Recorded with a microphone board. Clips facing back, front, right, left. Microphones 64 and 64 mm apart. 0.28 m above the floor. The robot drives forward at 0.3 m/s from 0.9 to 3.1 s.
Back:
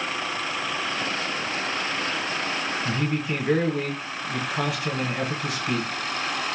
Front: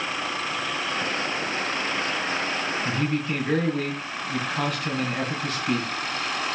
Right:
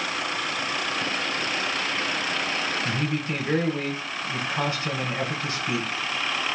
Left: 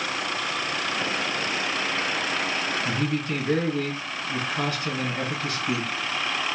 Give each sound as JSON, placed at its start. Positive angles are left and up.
{"t": 2.9, "sound": "a man speaking", "azimuth_deg": -100, "distance_m": 1.0}